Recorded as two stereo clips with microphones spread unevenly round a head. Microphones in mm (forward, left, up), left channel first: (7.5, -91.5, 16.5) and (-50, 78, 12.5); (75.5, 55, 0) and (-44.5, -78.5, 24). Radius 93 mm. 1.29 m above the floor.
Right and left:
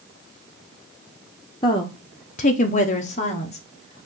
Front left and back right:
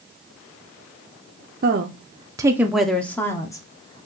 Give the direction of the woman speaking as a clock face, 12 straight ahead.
4 o'clock.